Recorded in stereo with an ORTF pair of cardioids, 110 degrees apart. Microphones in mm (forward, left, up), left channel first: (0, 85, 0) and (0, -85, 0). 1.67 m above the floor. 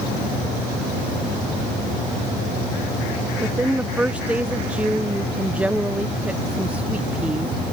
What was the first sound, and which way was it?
A woman speaking, 10° right.